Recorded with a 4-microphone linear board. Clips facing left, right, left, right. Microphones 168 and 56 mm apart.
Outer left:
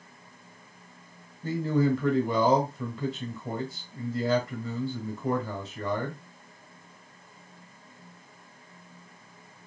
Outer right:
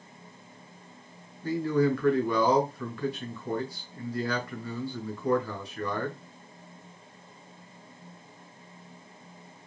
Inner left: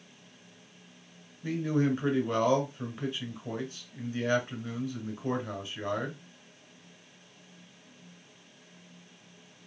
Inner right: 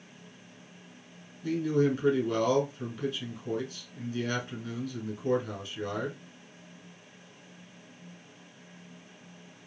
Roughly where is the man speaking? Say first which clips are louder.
Even, inner right 2 dB; left.